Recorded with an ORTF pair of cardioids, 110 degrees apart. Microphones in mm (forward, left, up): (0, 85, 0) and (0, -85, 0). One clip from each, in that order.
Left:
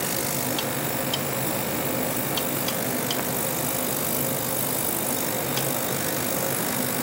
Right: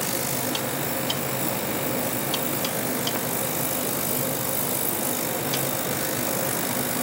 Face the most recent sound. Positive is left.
No sound to turn to.